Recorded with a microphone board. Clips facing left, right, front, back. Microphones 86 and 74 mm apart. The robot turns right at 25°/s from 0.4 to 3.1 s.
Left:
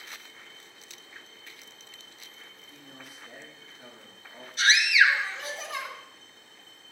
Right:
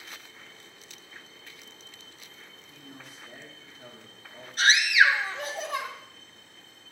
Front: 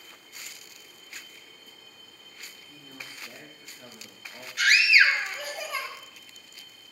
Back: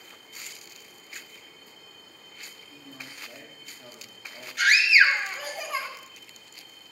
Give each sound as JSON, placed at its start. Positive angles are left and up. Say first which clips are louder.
{"t": 2.5, "sound": "a man speaking", "louder": "right 2 dB, back 1 dB", "azimuth_deg": -5, "distance_m": 5.5}
{"t": 4.6, "sound": "a scream", "louder": "right 1 dB, back 1 dB", "azimuth_deg": -90, "distance_m": 2.5}